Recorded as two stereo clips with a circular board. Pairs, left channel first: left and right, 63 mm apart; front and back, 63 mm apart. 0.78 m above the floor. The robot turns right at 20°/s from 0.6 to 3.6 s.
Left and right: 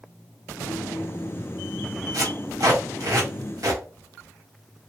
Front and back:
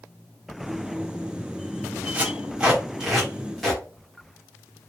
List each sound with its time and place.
2.1 s tape being pulled: 115° right, 2 m; by 3.8 s 85° right, 2 m